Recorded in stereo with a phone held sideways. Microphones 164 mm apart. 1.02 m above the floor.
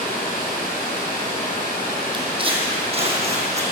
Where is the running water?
65° left (ahead or behind), 4 m.